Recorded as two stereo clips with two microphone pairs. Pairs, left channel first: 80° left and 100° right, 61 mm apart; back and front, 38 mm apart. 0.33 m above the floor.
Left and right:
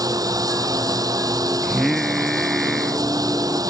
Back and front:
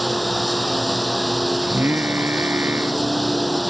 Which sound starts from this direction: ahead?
Singing, at 1.6 s.